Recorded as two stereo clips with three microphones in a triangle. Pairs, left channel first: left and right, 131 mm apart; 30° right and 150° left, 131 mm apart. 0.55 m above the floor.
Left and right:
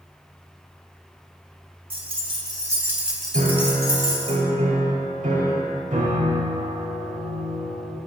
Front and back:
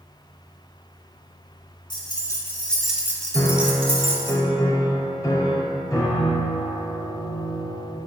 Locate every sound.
1.9 s keys jangling: 70° right, 0.9 m; by 4.3 s 140° left, 1.0 m
3.3 s a piano: 95° right, 0.7 m